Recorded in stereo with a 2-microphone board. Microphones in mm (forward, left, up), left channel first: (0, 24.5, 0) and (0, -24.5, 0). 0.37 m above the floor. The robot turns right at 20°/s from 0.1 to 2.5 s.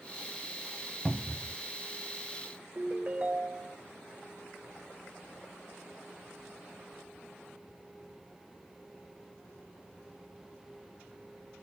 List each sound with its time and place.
1.1 s a cupboard door: 15° left (ahead or behind), 1.0 m; by 1.6 s 10° left (ahead or behind), 1.0 m
2.8 s a ringtone: 30° right (ahead or behind), 1.2 m